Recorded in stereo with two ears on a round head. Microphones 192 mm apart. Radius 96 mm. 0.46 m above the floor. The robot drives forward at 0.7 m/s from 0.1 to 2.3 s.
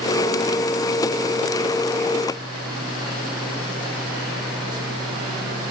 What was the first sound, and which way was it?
Only background noise.